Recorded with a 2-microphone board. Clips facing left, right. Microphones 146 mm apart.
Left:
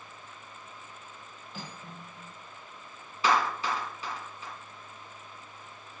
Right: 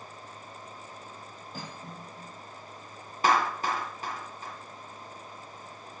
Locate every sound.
1.5 s cutlery clinking: 40° right (ahead or behind), 5 m
3.2 s a clap: 45° right (ahead or behind), 1.9 m